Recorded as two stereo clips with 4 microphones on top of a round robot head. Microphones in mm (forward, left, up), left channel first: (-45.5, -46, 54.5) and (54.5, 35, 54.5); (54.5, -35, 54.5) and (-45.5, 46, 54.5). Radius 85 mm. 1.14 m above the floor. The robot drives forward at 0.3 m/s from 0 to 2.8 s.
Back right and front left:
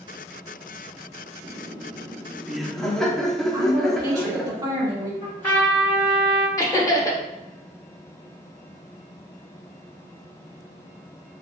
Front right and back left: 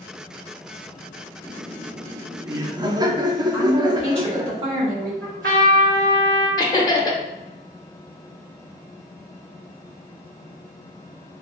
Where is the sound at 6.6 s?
85° right, 1.0 m.